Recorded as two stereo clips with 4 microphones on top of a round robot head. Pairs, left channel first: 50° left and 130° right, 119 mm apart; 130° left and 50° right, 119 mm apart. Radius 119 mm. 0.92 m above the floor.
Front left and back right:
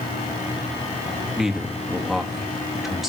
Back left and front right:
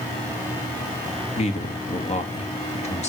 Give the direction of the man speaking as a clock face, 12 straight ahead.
7 o'clock.